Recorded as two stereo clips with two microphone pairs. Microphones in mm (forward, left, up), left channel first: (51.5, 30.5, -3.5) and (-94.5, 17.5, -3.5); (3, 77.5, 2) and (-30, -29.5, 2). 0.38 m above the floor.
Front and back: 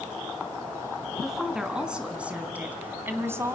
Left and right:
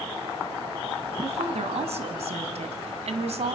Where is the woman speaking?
90° right, 3 m; by 3.6 s 105° right, 2 m.